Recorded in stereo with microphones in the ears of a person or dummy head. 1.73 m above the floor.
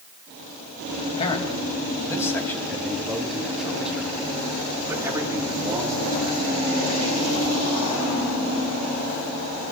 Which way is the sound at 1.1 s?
35° left (ahead or behind).